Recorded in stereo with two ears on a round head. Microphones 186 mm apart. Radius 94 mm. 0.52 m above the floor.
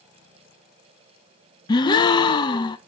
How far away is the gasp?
About 0.5 m.